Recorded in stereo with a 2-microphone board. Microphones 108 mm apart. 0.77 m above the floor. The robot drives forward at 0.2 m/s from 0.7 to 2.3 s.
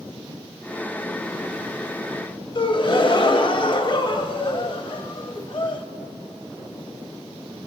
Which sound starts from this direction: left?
A gasp, at 2.5 s.